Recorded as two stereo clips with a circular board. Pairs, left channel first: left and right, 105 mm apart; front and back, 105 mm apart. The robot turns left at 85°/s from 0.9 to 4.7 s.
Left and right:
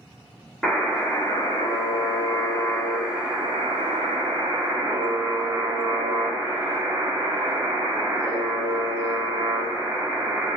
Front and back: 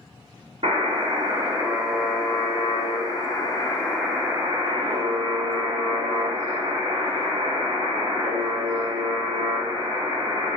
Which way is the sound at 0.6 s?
175° left.